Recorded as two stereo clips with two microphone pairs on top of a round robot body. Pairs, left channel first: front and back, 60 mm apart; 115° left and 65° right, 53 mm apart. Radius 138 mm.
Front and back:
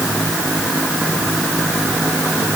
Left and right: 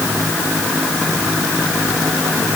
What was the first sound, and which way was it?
Only background noise.